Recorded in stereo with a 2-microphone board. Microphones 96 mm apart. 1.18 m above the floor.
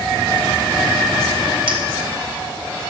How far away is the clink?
About 3.5 m.